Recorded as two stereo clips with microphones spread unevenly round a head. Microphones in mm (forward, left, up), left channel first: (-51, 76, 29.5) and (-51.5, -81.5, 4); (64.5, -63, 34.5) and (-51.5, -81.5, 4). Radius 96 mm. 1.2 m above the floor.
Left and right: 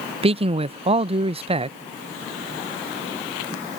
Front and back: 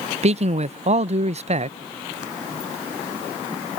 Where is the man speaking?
145° right.